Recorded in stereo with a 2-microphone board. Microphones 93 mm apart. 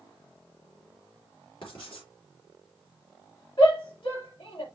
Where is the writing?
55° left (ahead or behind), 5.5 m.